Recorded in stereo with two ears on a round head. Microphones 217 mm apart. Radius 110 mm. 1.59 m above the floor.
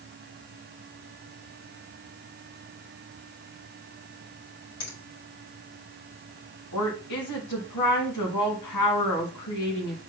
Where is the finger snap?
65° left (ahead or behind), 4 m.